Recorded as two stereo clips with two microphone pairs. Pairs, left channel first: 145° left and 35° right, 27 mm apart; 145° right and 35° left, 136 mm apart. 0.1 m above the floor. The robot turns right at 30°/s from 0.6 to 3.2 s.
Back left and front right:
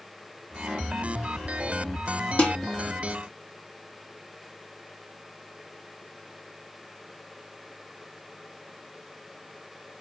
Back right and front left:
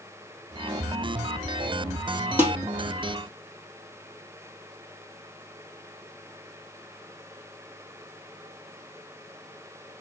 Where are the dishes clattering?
110° left, 2 m; by 2.6 s 115° left, 2 m.